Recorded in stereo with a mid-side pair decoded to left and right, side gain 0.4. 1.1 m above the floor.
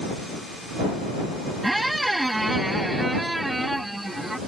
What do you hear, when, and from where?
1.6 s a squeak: 10° right